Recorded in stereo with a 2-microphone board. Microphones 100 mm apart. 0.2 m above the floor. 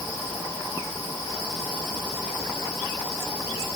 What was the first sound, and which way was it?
Only background noise.